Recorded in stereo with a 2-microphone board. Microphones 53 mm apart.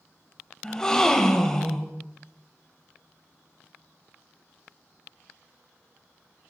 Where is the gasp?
15° left (ahead or behind), 0.6 m.